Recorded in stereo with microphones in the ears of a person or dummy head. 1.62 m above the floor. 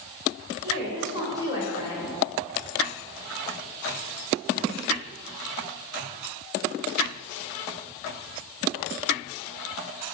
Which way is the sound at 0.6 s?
25° right (ahead or behind).